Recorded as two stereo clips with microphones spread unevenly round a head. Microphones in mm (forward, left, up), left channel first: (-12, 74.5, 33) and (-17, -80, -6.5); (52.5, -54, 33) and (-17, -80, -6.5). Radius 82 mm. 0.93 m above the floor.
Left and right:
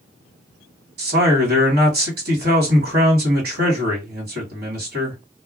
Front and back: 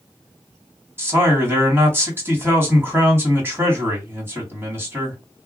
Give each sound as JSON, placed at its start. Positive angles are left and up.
{"t": 1.0, "sound": "a man speaking", "azimuth_deg": -105, "distance_m": 1.9}